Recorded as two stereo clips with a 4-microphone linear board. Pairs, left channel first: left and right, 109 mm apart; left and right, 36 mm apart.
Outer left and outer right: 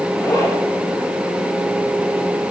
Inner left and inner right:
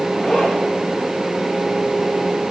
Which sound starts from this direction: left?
A zipper, at 0.2 s.